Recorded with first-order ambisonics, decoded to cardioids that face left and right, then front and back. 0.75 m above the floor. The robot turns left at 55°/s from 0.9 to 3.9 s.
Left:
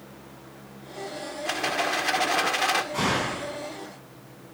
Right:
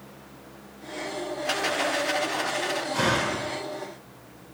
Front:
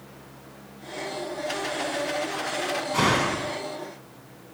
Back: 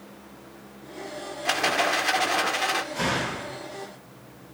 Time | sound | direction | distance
1.4 | a rattle | straight behind | 1.7 m
2.9 | a door slam | 10° left | 6 m